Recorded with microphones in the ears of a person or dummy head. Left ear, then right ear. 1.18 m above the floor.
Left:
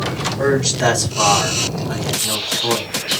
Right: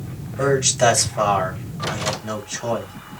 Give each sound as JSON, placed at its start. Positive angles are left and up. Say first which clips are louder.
{"t": 0.4, "sound": "a man speaking", "louder": "right 1 dB", "side_deg": -55, "distance_m": 2.0}